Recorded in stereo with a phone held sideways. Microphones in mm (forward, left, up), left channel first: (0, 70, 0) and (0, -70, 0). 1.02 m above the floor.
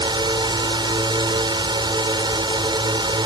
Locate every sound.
0.0 s a drone: 30° right (ahead or behind)